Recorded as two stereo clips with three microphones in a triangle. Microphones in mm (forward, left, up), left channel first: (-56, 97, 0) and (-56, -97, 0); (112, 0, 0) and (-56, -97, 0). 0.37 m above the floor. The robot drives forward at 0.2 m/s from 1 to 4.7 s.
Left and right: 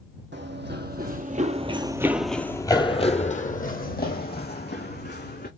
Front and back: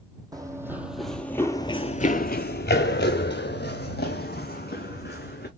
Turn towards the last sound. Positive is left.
turn(degrees=60)